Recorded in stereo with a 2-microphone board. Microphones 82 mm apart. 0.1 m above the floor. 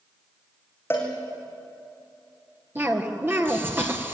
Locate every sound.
0.9 s a cowbell: 30° left (ahead or behind), 4.5 m
2.8 s a cough: 30° right (ahead or behind), 2 m